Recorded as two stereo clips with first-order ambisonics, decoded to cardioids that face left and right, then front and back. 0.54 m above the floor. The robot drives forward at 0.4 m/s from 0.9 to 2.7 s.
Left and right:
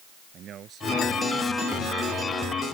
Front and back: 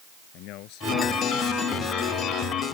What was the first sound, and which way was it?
A man speaking, 35° right.